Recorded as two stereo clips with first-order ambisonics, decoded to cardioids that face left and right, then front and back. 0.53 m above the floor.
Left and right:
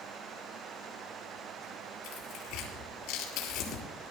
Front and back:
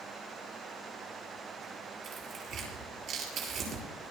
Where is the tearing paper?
130° left, 6 m.